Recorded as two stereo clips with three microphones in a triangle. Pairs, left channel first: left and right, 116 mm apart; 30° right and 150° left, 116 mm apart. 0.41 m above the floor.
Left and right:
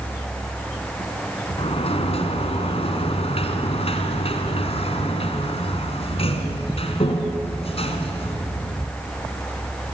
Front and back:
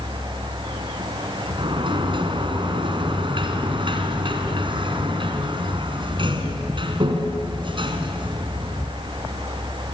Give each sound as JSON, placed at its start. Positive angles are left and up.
{"t": 1.6, "sound": "a sliding door", "azimuth_deg": 110, "distance_m": 2.5}